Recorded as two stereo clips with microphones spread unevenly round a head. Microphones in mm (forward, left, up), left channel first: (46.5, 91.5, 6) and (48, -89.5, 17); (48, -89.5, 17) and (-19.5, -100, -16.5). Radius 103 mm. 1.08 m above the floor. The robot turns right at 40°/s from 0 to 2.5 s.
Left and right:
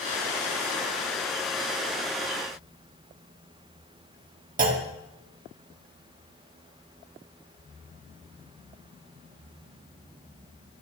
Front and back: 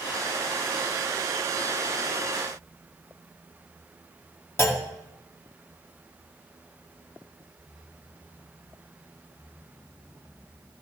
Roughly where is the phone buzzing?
No phone buzzing in this recording.